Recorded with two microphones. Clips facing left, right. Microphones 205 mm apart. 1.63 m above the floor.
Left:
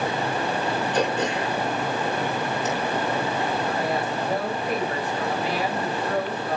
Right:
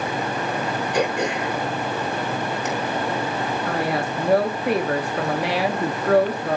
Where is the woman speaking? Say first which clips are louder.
Right 2 dB; 75° right (ahead or behind), 0.8 m.